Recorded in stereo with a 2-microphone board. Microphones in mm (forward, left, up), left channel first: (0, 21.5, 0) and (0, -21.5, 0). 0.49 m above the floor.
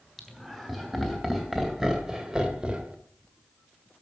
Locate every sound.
0.2 s laughter: centre (ahead or behind), 3.5 m; by 3.0 s 25° right (ahead or behind), 1.7 m